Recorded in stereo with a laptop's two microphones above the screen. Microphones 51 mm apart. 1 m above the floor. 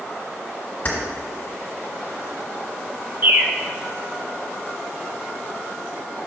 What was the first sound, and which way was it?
Keys jangling, 30° left (ahead or behind).